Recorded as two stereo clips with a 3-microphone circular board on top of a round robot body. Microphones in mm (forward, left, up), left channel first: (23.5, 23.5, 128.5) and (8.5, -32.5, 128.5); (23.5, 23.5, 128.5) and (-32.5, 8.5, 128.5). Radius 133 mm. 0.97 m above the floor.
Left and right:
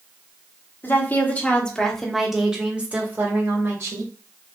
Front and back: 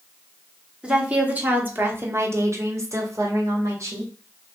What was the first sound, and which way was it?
A woman speaking, 125° left.